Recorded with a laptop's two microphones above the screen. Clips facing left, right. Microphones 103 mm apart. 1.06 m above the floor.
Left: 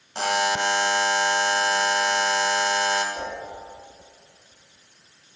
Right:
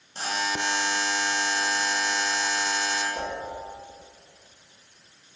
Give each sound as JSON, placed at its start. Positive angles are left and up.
{"t": 0.1, "sound": "a buzzer", "side_deg": 75, "distance_m": 0.5}
{"t": 3.1, "sound": "a whoosh", "side_deg": -35, "distance_m": 1.2}